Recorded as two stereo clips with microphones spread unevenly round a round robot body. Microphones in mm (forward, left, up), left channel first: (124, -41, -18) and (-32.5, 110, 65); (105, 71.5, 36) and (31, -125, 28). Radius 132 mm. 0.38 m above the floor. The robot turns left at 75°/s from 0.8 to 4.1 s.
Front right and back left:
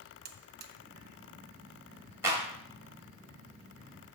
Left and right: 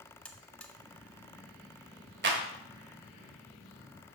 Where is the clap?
130° right, 1.2 m; by 2.4 s 145° right, 1.2 m.